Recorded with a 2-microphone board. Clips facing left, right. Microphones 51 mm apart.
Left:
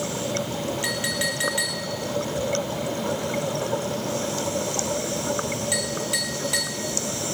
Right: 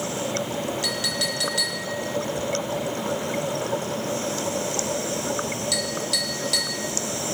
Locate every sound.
0.8 s a clink: 25° left (ahead or behind), 3 m